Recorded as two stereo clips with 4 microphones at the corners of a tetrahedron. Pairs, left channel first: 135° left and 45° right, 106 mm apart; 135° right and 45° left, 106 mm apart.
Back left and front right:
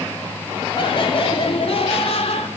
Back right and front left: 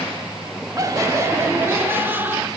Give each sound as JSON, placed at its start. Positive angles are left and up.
{"t": 0.8, "sound": "laughter", "azimuth_deg": 100, "distance_m": 2.5}